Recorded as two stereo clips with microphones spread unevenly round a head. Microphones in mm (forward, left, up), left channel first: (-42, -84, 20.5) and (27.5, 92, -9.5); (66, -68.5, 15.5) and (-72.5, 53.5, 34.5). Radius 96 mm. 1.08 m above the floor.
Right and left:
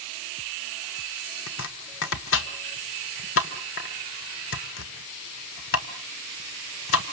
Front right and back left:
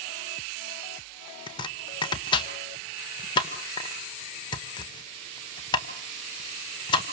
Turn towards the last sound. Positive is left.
turn(degrees=-110)